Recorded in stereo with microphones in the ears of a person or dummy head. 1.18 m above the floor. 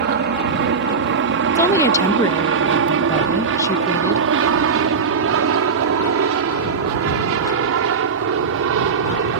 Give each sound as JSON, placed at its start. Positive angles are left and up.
{"t": 0.0, "sound": "an aircraft", "side_deg": -50}
{"t": 1.6, "sound": "a woman speaking", "side_deg": 15}